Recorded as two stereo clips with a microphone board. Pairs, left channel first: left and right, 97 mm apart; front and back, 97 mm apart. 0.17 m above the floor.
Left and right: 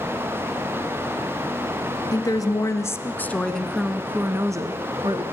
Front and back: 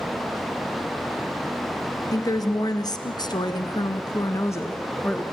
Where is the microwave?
I don't hear a microwave.